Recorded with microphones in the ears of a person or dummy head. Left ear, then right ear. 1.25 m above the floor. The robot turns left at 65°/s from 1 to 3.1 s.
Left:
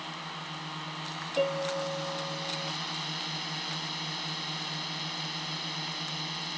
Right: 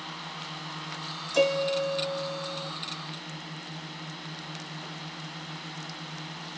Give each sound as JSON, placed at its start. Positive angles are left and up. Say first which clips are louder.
{"t": 0.0, "sound": "a drone", "louder": "even", "azimuth_deg": 170}
{"t": 1.3, "sound": "a piano", "louder": "right 5 dB", "azimuth_deg": -95}